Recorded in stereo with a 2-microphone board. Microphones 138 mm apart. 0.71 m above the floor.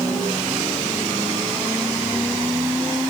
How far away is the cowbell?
No cowbell in this recording.